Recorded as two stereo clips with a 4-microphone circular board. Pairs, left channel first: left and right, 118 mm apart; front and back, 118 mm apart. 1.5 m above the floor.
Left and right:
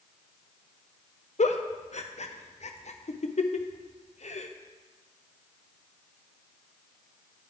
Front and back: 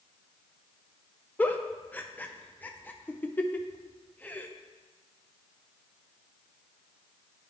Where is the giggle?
75° left, 0.5 m.